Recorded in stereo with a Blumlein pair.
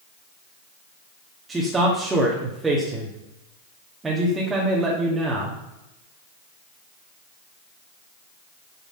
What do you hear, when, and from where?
1.5 s a man speaking: 10° right, 2 m